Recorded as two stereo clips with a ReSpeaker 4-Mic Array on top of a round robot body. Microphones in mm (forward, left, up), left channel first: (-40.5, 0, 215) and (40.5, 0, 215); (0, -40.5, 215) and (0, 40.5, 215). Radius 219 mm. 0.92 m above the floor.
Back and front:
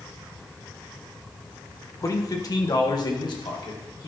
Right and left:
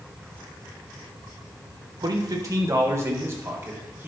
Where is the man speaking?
130° left, 1.2 m; by 4.1 s 155° left, 2.5 m.